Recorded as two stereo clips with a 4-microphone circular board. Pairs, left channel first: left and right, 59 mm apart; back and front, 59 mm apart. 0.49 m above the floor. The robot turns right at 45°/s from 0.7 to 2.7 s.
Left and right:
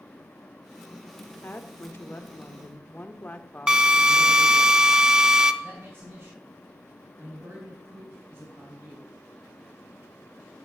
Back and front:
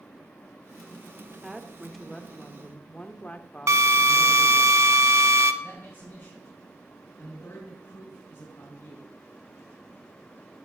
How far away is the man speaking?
About 3.5 m.